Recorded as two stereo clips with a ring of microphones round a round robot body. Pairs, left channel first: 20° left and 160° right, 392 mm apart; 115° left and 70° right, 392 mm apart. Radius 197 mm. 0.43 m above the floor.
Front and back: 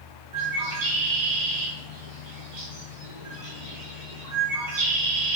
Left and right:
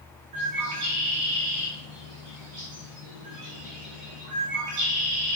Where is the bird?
115° right, 6.5 m.